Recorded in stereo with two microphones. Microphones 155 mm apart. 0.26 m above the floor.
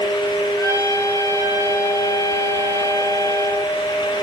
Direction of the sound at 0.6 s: 20° left (ahead or behind).